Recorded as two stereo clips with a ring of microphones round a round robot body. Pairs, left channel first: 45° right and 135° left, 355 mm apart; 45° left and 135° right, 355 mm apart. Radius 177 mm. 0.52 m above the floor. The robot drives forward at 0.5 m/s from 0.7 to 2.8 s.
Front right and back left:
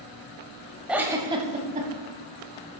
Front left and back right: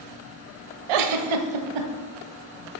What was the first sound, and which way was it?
A giggle, 135° right.